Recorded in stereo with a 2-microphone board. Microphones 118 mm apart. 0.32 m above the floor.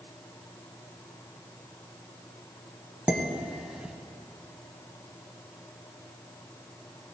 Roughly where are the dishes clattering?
Centre.